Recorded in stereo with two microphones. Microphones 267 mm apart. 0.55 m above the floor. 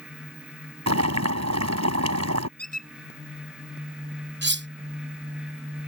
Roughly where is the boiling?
Right.